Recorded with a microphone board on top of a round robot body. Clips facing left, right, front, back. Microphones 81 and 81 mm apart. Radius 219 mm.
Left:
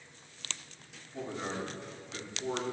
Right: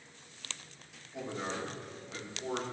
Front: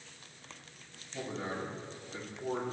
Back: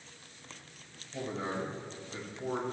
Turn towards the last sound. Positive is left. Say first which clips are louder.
# left 1 dB, back 2 dB
turn(degrees=-170)